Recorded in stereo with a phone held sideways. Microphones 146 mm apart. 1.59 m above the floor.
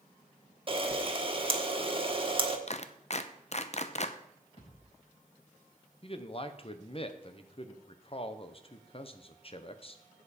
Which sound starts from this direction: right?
A camera shutter, at 0.7 s.